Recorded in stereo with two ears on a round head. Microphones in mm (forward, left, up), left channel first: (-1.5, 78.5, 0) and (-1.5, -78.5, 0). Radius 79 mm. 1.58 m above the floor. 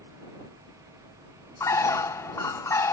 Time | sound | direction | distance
1.6 | a bird | 15° left (ahead or behind) | ?